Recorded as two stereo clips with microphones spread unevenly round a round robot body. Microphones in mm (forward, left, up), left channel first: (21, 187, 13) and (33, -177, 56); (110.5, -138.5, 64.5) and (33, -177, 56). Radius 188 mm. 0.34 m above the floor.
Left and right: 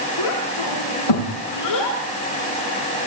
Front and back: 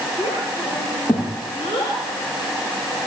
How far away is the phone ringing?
I don't hear a phone ringing.